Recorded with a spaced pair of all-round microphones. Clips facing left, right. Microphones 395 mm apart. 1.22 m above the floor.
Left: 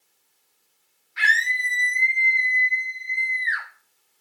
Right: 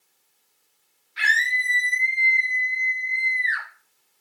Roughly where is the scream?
Right.